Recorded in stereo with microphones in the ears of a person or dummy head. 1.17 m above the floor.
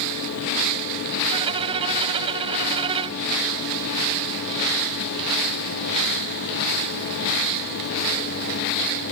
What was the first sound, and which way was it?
A violin, 35° right (ahead or behind).